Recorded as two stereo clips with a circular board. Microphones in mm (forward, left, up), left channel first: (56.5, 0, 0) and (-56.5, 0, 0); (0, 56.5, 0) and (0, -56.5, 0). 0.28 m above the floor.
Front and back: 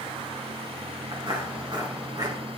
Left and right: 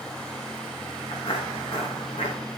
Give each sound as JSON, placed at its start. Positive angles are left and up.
{"t": 1.1, "sound": "footsteps", "azimuth_deg": 135, "distance_m": 3.5}